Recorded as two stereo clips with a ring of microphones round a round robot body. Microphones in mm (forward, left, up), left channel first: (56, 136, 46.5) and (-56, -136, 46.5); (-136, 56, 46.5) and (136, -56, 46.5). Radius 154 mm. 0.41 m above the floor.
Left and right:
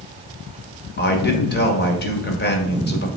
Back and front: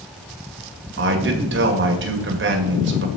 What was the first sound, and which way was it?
A man speaking, 20° left.